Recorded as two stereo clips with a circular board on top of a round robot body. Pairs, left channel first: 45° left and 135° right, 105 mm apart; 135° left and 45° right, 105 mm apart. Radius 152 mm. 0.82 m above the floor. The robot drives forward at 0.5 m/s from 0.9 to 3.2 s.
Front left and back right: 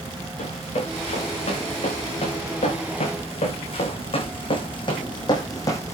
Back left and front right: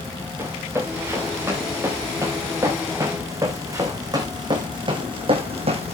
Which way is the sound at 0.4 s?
25° left.